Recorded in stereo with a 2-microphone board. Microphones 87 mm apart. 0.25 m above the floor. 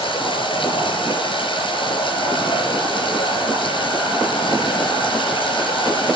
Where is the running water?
75° left (ahead or behind), 4.5 m.